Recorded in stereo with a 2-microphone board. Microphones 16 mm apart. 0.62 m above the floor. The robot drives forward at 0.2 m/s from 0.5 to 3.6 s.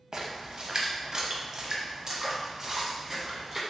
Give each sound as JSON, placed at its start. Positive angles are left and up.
{"t": 0.1, "sound": "a splash", "side_deg": -45, "distance_m": 0.5}